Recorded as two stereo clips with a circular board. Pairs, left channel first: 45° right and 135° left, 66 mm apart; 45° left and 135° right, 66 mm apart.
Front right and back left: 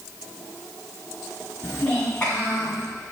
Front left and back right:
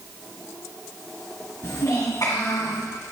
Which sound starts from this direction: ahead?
A child speaking, at 1.6 s.